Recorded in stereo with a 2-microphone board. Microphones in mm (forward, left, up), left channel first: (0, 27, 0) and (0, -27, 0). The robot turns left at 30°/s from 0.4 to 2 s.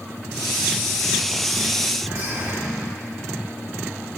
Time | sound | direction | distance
2.0 | whispering | 75° right (ahead or behind) | 4 m